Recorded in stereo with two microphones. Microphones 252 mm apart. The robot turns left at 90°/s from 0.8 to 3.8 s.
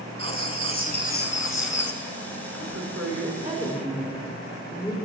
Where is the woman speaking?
75° right, 3 m; by 5.0 s 175° left, 3 m.